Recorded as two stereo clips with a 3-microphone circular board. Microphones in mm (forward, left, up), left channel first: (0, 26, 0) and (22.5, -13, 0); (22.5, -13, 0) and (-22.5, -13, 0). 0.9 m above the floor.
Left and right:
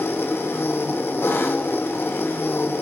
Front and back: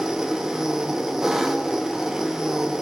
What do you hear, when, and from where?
0.0 s an engine running: 100° left, 0.9 m